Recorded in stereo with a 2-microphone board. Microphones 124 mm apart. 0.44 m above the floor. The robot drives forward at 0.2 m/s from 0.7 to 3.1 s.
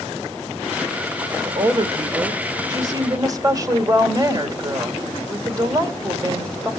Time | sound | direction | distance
1.4 | a woman speaking | 35° right (ahead or behind) | 1.1 m